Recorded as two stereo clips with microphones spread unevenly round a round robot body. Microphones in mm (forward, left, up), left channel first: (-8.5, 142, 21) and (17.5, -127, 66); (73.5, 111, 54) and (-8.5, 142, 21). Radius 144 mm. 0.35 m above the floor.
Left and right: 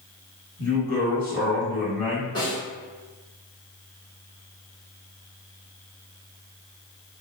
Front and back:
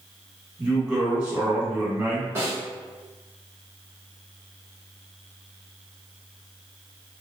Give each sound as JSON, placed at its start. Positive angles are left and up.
{"t": 0.6, "sound": "a woman speaking", "azimuth_deg": 100, "distance_m": 1.4}
{"t": 2.4, "sound": "a snare drum", "azimuth_deg": 155, "distance_m": 1.3}